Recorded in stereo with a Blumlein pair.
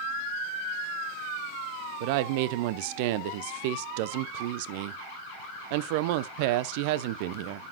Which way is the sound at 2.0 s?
45° right.